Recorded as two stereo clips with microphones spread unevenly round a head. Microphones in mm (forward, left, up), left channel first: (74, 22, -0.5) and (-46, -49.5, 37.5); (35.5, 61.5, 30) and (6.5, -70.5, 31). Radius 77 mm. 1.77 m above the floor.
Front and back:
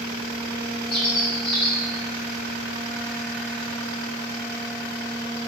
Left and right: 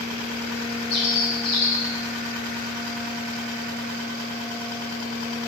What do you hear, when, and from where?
0.9 s a bird: 90° left, 1.6 m